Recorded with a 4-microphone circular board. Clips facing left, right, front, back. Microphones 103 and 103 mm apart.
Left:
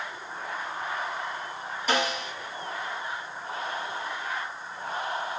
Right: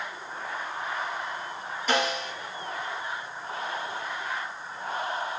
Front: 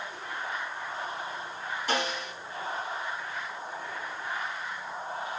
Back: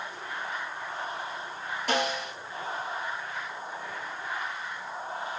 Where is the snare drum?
175° left, 3.5 m.